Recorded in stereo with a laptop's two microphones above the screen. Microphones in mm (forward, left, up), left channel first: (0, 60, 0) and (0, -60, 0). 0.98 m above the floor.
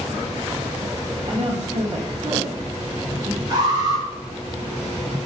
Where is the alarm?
35° right (ahead or behind), 5 m.